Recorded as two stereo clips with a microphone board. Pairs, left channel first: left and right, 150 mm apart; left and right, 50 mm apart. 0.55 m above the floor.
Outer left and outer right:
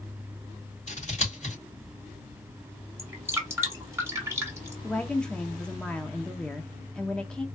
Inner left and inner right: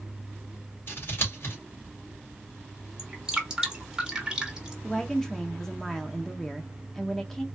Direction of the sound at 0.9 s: 50° left (ahead or behind).